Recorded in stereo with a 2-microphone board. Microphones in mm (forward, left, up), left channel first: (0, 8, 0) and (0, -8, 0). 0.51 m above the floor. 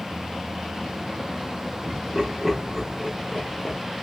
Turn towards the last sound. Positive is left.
turn(degrees=30)  # may be behind; listen again after turning